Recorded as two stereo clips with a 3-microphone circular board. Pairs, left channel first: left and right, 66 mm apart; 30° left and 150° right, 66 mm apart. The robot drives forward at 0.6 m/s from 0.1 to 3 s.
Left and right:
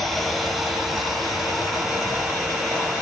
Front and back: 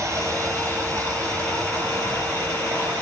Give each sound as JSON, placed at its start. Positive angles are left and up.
{"t": 0.0, "sound": "running water", "azimuth_deg": 175, "distance_m": 0.8}